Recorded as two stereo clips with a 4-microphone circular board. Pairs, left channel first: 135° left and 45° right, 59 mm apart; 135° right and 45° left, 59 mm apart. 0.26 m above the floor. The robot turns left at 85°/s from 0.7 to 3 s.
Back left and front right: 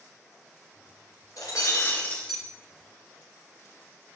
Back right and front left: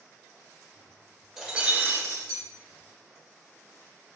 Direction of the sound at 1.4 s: 125° left.